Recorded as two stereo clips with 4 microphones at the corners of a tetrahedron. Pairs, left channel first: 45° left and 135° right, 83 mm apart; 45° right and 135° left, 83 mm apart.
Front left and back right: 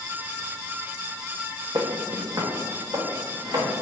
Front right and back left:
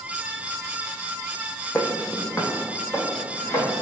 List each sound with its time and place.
1.8 s footsteps: 115° right, 0.6 m; by 3.8 s 100° right, 2 m